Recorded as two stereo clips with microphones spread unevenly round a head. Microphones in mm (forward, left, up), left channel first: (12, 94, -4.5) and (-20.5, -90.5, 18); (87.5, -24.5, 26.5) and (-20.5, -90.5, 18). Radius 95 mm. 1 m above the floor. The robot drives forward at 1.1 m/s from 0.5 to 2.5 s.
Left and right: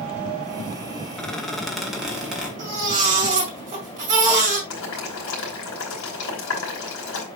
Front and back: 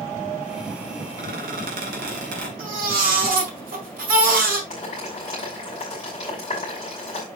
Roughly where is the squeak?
Behind.